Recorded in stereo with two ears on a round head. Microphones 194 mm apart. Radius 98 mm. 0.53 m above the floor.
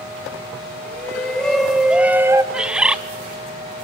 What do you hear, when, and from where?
0.8 s a shout: 5° left (ahead or behind), 3 m; by 2.4 s 15° right (ahead or behind), 1.4 m
2.5 s a bird: 5° right (ahead or behind), 0.5 m